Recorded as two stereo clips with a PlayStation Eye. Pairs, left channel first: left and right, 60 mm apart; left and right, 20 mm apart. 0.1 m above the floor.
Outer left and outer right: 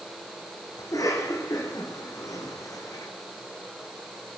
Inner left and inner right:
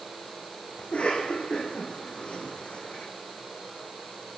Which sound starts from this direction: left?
A cough, at 0.8 s.